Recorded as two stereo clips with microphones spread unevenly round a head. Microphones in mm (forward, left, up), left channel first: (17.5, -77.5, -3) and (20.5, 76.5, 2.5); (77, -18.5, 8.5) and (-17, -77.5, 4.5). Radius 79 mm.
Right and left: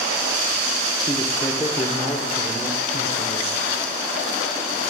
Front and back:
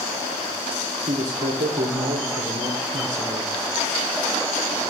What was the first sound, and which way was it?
A man speaking, 165° right.